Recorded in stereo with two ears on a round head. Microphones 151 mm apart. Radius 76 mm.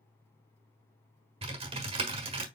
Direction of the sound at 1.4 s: 35° right (ahead or behind).